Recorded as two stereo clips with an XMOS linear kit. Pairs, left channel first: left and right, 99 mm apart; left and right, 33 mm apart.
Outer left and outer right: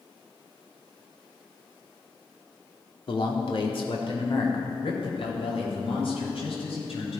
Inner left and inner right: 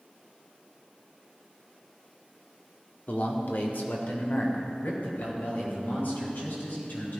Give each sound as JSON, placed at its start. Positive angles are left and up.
{"t": 3.1, "sound": "a man speaking", "side_deg": 60, "distance_m": 1.9}